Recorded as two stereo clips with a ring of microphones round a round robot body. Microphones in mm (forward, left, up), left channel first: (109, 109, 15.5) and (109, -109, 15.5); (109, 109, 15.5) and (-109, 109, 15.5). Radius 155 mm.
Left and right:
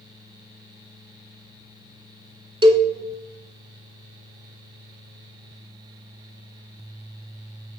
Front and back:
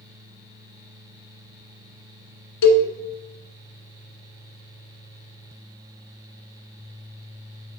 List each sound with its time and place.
2.6 s a cowbell: 20° right, 0.9 m